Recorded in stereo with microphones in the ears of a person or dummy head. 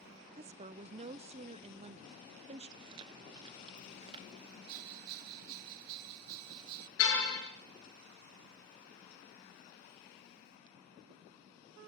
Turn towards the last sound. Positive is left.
turn(degrees=80)